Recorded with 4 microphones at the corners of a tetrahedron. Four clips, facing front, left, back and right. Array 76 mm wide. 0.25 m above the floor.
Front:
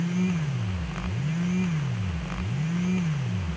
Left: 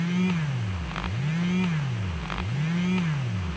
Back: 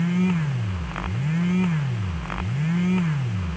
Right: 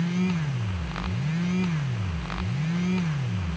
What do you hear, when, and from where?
Only background noise.